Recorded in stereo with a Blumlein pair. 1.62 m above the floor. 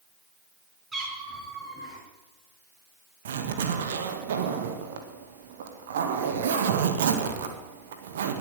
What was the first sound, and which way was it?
A cat meowing, 20° right.